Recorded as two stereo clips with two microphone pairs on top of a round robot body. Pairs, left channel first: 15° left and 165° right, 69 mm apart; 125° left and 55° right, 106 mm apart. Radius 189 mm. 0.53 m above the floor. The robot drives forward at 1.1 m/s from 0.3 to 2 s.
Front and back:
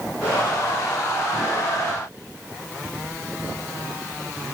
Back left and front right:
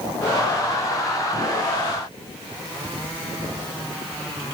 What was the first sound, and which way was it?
Only background noise.